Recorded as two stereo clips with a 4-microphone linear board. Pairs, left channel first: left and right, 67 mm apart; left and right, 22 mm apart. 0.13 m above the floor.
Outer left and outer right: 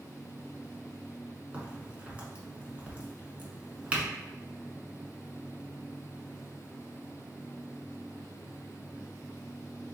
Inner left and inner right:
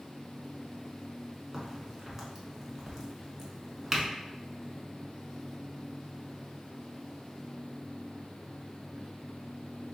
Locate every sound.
1.5 s a crack: 20° right (ahead or behind), 1.2 m